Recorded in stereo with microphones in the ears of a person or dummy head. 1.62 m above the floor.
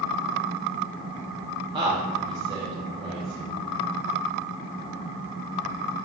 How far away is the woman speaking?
About 0.8 m.